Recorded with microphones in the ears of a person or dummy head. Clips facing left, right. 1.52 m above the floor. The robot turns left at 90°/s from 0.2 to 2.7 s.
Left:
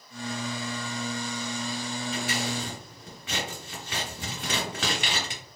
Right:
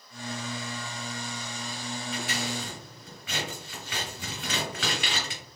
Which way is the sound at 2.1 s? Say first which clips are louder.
Left 2 dB; 35° left (ahead or behind).